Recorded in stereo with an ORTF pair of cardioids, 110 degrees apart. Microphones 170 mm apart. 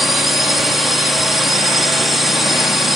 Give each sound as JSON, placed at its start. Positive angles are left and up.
{"t": 0.0, "sound": "a drone", "azimuth_deg": 0}